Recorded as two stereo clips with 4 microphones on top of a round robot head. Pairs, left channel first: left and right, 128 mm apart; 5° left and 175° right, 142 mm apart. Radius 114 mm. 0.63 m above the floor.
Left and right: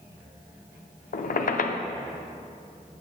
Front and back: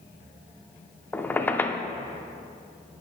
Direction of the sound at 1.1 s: 85° left.